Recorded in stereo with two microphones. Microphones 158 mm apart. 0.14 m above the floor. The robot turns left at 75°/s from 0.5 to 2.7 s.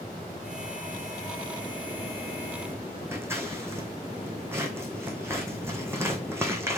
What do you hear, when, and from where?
3.1 s scissors: 15° right (ahead or behind), 1.1 m